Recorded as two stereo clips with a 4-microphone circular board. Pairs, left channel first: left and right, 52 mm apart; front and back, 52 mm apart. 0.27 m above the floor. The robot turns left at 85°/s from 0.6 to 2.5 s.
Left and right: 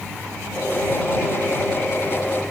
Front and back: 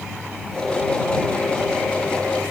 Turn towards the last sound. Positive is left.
No sound to turn to.